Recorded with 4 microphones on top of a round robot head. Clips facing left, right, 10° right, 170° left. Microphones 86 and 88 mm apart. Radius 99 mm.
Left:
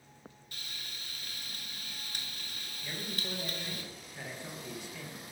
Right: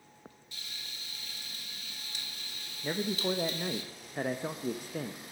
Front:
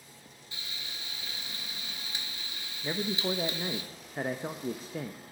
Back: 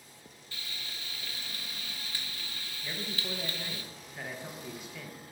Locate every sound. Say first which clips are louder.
0.5 s frying: left 2 dB, even; 60° left, 1.8 m
2.8 s a man speaking: right 10 dB, front 8 dB; 60° right, 0.6 m